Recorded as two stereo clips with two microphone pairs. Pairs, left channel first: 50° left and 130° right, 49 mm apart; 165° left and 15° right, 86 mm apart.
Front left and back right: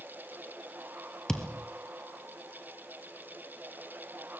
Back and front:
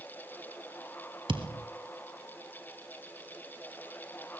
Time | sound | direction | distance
1.3 | a thud | 20° right | 1.8 m